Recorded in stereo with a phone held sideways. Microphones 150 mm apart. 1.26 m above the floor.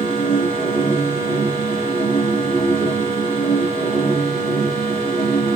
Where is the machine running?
40° left (ahead or behind), 3 m.